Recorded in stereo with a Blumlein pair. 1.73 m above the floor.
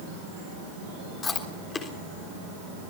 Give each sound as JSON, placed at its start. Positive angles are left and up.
{"t": 1.2, "sound": "chewing", "azimuth_deg": 20, "distance_m": 3.5}